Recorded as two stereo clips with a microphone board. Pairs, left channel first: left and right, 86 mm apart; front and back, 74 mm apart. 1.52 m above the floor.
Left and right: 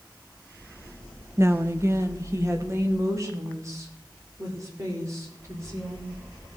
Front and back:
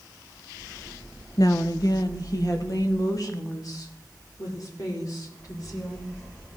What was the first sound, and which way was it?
A woman speaking, 30° right.